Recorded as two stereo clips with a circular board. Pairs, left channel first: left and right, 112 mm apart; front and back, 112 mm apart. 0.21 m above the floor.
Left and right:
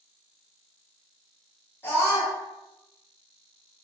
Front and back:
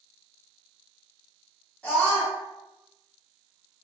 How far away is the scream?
About 1.3 m.